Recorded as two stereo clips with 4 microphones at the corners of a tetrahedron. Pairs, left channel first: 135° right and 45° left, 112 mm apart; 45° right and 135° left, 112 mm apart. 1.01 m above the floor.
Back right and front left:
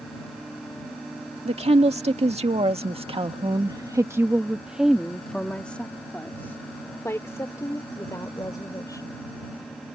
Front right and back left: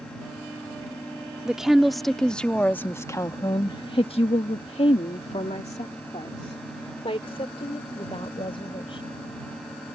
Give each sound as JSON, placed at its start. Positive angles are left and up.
{"t": 1.4, "sound": "a woman speaking", "azimuth_deg": 50}